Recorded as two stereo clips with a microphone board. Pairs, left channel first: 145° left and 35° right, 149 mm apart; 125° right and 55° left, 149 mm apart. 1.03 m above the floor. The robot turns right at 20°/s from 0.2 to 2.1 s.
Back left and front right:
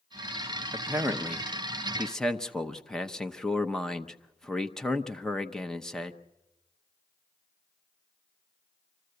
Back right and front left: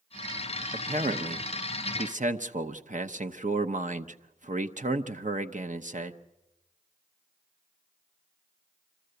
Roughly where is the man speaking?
Ahead left.